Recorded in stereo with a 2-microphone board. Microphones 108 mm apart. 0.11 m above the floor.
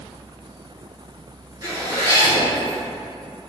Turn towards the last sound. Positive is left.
turn(degrees=-30)  # may be behind; listen again after turning